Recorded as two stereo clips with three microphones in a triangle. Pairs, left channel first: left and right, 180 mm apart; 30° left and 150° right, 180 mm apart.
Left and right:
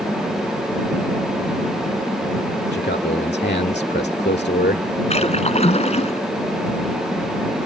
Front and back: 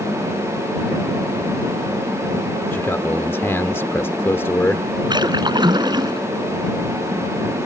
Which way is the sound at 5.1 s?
145° left.